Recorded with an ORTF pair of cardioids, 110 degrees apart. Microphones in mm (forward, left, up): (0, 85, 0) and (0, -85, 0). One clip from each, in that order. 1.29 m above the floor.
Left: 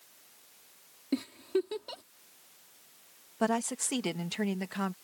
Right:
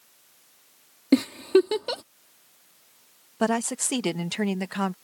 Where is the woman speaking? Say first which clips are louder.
Right 5 dB; 30° right.